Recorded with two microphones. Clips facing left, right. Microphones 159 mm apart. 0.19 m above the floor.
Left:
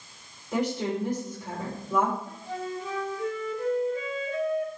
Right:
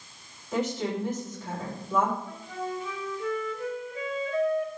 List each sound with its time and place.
0.5 s a woman speaking: 15° left (ahead or behind), 5.5 m
2.3 s a flute: 45° left (ahead or behind), 4 m